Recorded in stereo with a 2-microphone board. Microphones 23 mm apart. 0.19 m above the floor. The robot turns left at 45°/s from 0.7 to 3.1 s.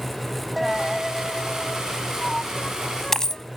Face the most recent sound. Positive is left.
turn(degrees=25)  # may be behind; listen again after turning